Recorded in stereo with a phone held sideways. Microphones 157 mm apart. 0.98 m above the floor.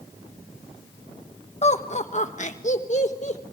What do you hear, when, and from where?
1.6 s laughter: 45° left (ahead or behind), 1.1 m